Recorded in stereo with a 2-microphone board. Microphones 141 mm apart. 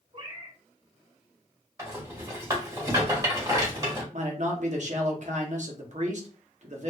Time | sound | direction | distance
0.1 | a cat meowing | 40° right (ahead or behind) | 1.6 m
1.8 | a rattle | 25° right (ahead or behind) | 2 m
4.1 | a man speaking | 55° right (ahead or behind) | 1.1 m